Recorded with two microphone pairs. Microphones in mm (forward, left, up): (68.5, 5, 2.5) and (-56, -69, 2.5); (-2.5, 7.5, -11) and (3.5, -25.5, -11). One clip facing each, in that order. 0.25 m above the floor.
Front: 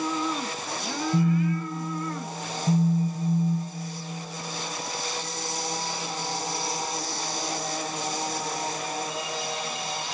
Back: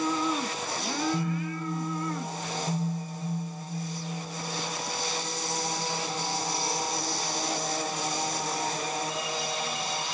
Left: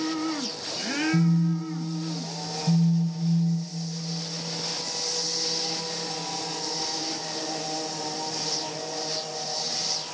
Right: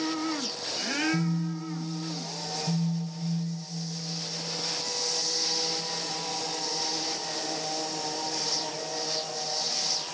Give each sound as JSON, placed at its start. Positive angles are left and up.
{"t": 1.1, "sound": "a phone buzzing", "azimuth_deg": 35, "distance_m": 0.8}